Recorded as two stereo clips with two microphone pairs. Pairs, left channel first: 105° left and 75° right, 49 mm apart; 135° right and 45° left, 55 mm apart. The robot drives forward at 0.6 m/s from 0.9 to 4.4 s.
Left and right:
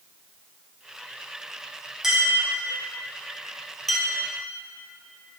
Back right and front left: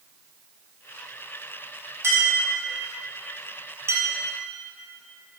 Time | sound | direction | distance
2.0 | a clink | 10° left | 2.5 m